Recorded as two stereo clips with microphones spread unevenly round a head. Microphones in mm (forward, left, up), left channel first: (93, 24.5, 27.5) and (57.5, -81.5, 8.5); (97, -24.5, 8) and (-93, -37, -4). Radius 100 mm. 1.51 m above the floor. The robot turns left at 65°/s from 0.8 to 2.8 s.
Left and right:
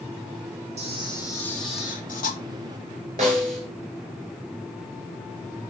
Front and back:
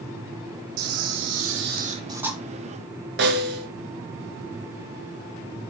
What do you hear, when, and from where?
0.8 s a camera shutter: 165° right, 0.8 m; by 2.4 s 95° left, 0.8 m
3.2 s a snare drum: 160° right, 1.9 m